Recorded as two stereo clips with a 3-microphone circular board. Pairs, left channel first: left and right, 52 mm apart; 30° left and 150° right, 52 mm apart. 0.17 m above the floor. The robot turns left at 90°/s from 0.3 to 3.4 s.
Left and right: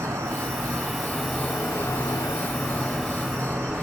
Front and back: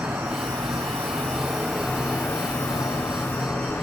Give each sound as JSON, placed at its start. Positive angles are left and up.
{"t": 0.0, "sound": "an insect", "azimuth_deg": -105, "distance_m": 1.8}